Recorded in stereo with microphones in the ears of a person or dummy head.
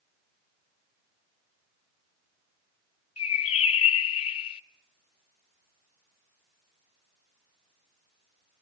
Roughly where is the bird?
Left.